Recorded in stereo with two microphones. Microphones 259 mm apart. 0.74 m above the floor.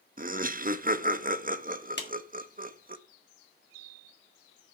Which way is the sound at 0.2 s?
35° right (ahead or behind).